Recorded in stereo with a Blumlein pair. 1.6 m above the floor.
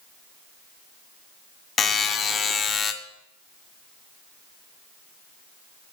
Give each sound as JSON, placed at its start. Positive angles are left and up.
{"t": 1.8, "sound": "a buzzer", "azimuth_deg": 20, "distance_m": 0.6}